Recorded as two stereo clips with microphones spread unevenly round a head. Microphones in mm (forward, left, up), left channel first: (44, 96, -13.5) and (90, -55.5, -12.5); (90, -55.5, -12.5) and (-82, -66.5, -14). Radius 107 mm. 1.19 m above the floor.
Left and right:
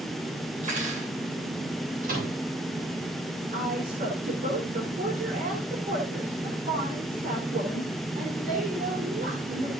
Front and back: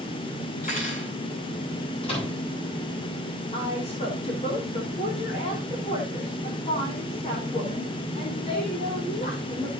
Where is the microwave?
50° right, 7.5 m.